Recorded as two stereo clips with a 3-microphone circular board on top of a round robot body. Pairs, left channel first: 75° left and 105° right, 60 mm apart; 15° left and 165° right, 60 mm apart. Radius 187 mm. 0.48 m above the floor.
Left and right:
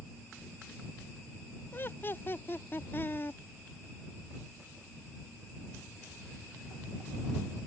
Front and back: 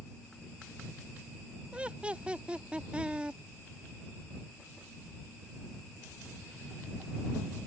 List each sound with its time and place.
1.7 s laughter: 125° left